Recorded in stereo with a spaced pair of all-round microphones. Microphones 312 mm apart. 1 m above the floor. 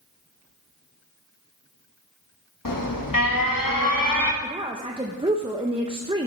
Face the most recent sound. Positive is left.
turn(degrees=-15)  # may be behind; listen again after turning